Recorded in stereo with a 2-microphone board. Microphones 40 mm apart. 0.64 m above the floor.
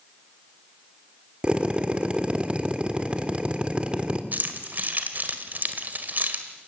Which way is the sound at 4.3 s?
45° right (ahead or behind).